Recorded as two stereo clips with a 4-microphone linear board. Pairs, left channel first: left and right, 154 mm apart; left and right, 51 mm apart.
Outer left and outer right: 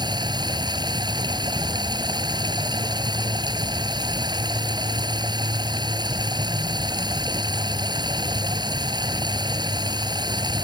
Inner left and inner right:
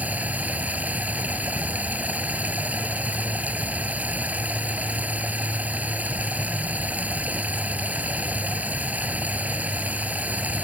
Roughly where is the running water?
Right.